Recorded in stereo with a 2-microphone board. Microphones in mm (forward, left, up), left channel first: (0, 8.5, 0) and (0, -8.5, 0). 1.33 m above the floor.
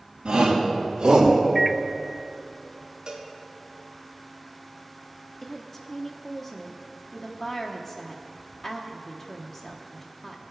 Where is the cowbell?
50° right (ahead or behind), 2 m.